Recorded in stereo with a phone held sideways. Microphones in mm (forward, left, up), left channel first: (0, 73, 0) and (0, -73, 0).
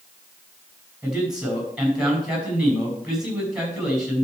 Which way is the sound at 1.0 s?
5° right (ahead or behind).